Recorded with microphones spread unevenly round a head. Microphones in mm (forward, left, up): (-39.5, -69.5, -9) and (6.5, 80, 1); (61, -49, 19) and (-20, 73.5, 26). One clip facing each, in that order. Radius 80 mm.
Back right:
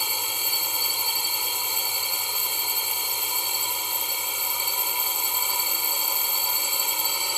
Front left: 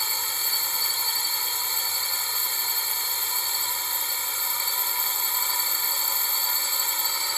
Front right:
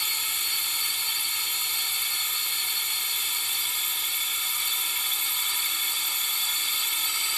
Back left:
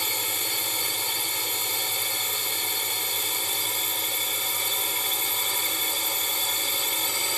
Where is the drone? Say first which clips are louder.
Back right 2 dB, back left 8 dB; 175° left.